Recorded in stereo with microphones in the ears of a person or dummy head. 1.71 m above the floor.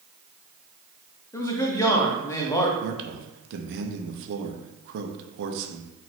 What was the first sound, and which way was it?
A man speaking, 15° left (ahead or behind).